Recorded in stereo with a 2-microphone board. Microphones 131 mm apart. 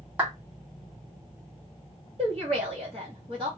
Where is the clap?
10° right (ahead or behind), 1.7 m.